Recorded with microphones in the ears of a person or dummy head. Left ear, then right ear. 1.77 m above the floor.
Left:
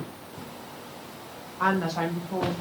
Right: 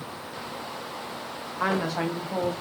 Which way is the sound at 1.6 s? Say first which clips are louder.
Left 1 dB; 5° right (ahead or behind).